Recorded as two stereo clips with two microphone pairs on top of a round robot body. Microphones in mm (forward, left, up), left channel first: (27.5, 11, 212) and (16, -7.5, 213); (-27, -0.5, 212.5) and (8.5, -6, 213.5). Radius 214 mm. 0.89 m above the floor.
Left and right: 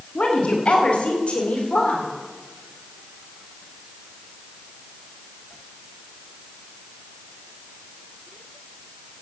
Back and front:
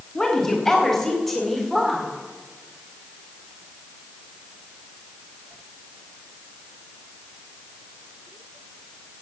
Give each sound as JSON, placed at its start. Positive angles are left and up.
{"t": 0.1, "sound": "a woman speaking", "azimuth_deg": 95, "distance_m": 3.0}